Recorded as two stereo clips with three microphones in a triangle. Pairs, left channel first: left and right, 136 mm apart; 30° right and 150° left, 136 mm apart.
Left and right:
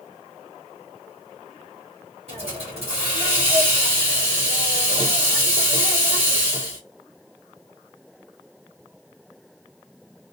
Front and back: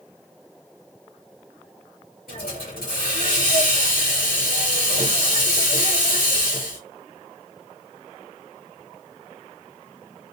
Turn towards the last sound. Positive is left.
turn(degrees=-45)